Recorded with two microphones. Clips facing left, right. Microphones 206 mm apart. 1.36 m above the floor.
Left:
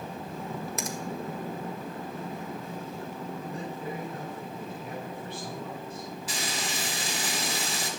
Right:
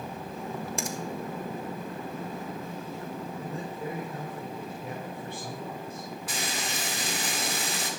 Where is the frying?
55° right (ahead or behind), 3 m.